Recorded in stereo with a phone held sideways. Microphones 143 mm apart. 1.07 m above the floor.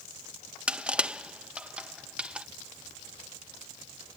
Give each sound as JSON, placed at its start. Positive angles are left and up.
{"t": 0.7, "sound": "crushing", "side_deg": -10}